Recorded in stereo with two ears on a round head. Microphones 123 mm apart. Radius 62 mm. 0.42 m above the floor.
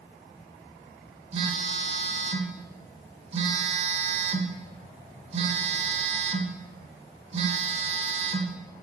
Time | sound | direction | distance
1.3 | a phone buzzing | 45° right (ahead or behind) | 0.8 m